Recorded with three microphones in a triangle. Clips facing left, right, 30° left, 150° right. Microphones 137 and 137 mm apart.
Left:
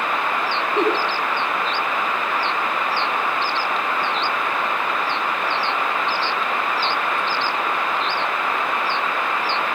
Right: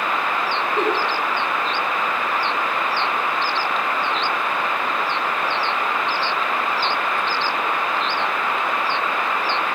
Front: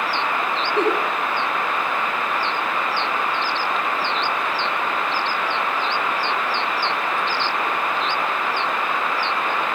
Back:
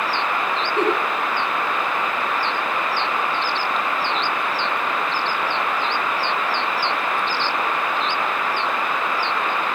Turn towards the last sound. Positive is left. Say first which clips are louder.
# left 2 dB, front 1 dB
turn(degrees=85)